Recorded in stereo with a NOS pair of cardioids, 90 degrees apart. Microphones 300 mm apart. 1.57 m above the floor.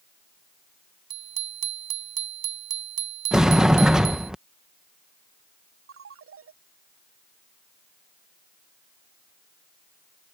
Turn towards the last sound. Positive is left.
turn(degrees=-50)